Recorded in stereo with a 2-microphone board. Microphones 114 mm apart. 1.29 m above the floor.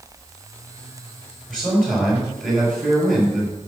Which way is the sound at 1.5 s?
5° right (ahead or behind).